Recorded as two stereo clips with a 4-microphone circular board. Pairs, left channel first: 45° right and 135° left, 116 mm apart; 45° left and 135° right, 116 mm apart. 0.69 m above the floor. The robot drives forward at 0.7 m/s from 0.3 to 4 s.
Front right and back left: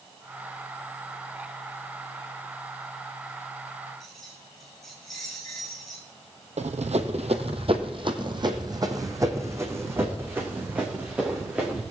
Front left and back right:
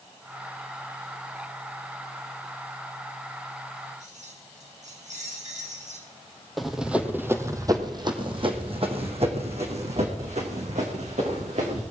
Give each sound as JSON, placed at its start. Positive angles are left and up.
{"t": 4.0, "sound": "keys jangling", "azimuth_deg": -135, "distance_m": 5.0}
{"t": 6.6, "sound": "running footsteps", "azimuth_deg": 135, "distance_m": 1.7}